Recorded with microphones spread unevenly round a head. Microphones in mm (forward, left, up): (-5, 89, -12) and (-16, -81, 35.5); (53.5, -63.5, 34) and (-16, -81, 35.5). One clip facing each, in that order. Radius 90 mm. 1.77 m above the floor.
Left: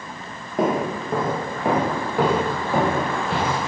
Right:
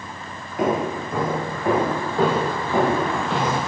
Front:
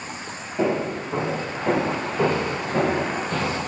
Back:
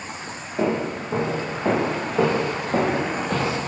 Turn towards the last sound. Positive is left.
turn(degrees=-175)